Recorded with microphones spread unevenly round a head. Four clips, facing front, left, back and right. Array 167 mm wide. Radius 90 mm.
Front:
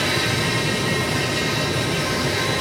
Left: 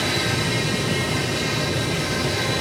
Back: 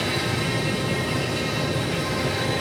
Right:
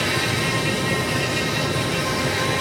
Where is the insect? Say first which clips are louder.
Right 1 dB, front 3 dB; 135° right, 1.3 m.